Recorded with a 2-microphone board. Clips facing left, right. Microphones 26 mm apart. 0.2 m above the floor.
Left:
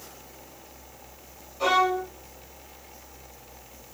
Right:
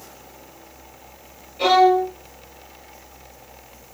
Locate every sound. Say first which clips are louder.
1.6 s a violin: right 8 dB; 75° right (ahead or behind), 3.5 m